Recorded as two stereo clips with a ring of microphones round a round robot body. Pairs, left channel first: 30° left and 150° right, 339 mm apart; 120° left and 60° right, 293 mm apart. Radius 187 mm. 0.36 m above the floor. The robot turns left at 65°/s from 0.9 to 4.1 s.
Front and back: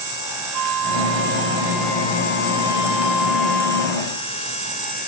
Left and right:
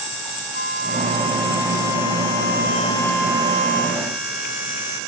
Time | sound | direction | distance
0.5 | a flute | straight behind | ?